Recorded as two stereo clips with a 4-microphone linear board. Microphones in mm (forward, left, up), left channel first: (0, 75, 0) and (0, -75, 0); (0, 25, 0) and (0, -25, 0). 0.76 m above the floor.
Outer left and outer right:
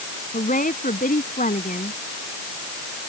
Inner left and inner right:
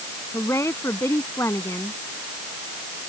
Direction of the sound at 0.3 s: 65° left (ahead or behind).